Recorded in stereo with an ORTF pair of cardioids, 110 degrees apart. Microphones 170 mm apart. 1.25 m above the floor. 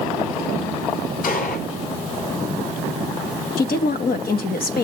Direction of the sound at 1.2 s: 65° left.